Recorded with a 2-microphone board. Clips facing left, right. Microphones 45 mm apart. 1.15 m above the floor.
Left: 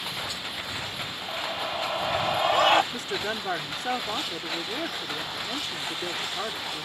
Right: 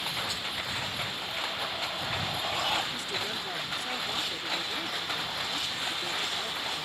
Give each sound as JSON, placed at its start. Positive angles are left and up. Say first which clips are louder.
{"t": 1.3, "sound": "a scream", "louder": "left 3 dB", "side_deg": 30}
{"t": 2.9, "sound": "a woman speaking", "louder": "left 4 dB", "side_deg": 50}